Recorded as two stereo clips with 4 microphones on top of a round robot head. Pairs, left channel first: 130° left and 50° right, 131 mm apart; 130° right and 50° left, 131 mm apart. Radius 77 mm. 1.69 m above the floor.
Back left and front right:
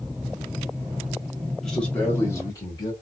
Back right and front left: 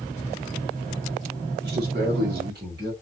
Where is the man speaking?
45° left, 1.2 m; by 2.9 s 70° left, 1.8 m.